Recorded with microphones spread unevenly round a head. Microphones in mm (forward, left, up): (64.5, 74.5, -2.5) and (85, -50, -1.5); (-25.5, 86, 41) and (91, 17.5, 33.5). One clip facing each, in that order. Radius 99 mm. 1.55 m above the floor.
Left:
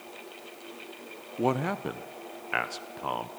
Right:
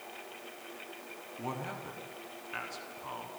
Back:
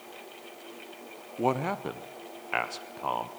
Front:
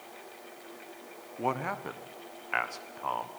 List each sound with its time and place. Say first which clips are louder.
1.4 s a man speaking: left 12 dB, back 4 dB; 85° left, 0.7 m